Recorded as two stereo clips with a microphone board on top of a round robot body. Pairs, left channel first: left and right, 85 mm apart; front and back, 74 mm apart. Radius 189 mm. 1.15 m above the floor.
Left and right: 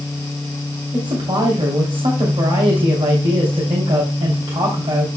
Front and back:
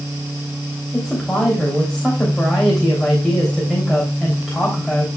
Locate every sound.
0.9 s a woman speaking: 90° right, 3 m